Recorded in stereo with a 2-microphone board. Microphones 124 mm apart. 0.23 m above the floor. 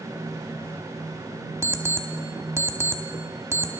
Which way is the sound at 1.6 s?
20° right (ahead or behind).